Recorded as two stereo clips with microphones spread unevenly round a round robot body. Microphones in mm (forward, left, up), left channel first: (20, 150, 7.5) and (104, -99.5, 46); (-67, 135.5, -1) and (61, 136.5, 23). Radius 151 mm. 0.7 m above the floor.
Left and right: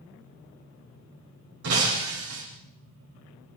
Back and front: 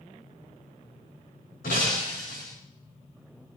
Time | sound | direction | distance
1.6 | breaking glass | 130° right | 7.5 m